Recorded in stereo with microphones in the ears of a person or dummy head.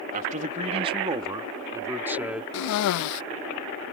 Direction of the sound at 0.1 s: 50° right (ahead or behind).